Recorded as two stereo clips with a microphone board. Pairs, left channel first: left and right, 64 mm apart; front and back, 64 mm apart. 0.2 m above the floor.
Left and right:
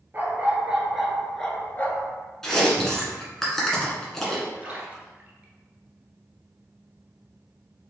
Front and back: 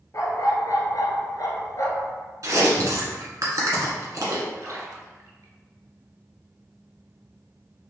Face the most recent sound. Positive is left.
turn(degrees=-150)